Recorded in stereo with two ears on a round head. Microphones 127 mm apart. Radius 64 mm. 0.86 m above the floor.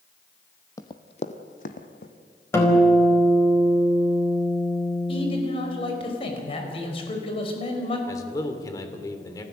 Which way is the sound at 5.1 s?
40° left (ahead or behind).